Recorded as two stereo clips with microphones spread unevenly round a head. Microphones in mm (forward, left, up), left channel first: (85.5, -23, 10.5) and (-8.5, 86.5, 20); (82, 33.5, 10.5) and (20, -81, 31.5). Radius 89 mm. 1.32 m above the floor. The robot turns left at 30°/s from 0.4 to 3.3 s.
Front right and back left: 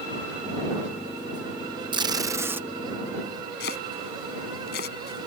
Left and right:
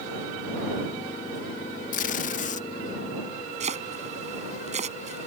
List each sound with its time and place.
1.9 s tape being pulled: 70° left; by 2.7 s 50° left
3.6 s chopping: 85° right